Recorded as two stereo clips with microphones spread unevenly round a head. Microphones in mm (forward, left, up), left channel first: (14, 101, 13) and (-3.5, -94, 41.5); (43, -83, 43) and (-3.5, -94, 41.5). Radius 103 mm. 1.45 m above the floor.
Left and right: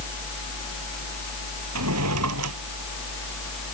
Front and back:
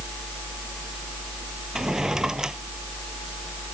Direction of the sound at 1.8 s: 90° right.